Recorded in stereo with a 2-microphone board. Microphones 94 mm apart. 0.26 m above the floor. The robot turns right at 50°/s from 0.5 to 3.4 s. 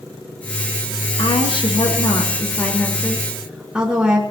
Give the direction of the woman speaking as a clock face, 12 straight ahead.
9 o'clock.